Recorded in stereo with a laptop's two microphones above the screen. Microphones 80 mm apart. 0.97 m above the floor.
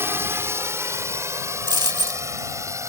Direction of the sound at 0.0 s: 30° right (ahead or behind).